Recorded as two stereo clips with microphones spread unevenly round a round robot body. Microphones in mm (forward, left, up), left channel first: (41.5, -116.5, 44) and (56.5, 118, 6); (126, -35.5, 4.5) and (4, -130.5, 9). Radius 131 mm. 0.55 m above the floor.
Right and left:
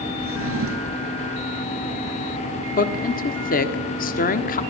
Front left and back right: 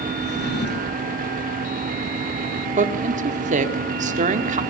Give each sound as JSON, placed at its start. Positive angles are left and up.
{"t": 0.2, "sound": "a drawer", "azimuth_deg": 55, "distance_m": 4.5}
{"t": 2.8, "sound": "a woman speaking", "azimuth_deg": -150, "distance_m": 1.6}